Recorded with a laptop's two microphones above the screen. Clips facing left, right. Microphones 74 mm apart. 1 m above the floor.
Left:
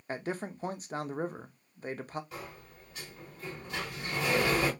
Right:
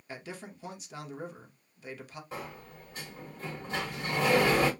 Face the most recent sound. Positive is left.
turn(degrees=-35)  # may be behind; listen again after turning